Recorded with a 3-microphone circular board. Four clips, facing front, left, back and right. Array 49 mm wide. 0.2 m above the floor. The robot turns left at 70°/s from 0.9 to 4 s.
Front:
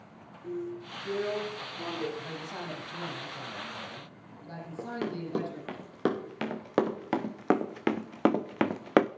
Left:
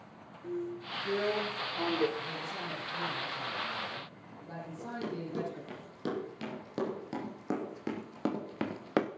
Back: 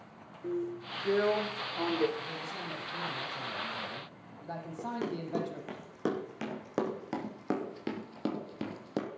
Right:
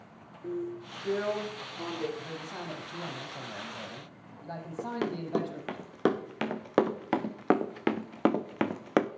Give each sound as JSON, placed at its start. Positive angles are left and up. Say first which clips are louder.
{"t": 0.4, "sound": "a drill", "louder": "right 2 dB, back 1 dB", "azimuth_deg": -150, "distance_m": 3.5}
{"t": 2.2, "sound": "a man speaking", "louder": "left 1 dB, front 1 dB", "azimuth_deg": -10, "distance_m": 6.0}
{"t": 4.8, "sound": "running footsteps", "louder": "right 6 dB, front 2 dB", "azimuth_deg": -80, "distance_m": 3.5}